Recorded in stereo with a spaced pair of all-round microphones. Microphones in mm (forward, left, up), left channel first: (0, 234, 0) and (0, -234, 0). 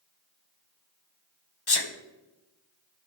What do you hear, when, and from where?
1.7 s a sneeze: 55° left (ahead or behind), 0.9 m